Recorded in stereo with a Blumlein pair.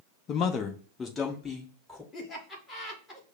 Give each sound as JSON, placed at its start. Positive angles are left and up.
{"t": 0.3, "sound": "a man speaking", "azimuth_deg": 30, "distance_m": 0.7}
{"t": 2.1, "sound": "laughter", "azimuth_deg": 15, "distance_m": 1.8}